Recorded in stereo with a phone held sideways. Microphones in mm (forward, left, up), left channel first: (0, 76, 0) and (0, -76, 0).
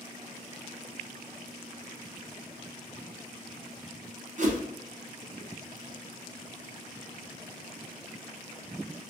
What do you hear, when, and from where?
4.4 s a whoosh: 55° right (ahead or behind), 0.7 m